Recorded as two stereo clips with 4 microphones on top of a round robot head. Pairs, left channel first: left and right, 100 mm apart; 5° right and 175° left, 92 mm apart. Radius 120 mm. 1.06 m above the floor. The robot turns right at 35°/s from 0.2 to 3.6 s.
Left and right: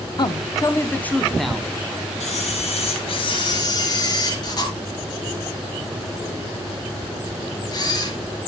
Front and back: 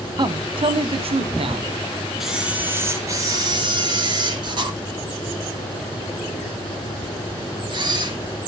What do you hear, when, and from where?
0.2 s a man speaking: 135° left, 1.3 m; by 1.7 s 175° right, 1.3 m
2.2 s a camera shutter: 90° left, 3 m; by 8.2 s 135° left, 3 m